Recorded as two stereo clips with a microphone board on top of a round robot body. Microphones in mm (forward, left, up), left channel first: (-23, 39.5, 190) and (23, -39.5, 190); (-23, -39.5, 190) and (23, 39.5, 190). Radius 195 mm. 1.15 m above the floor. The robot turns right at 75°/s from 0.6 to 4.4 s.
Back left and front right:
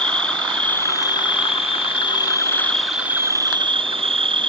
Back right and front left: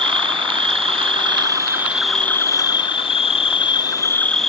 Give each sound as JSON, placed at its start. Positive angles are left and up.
{"t": 0.0, "sound": "an insect", "azimuth_deg": 40}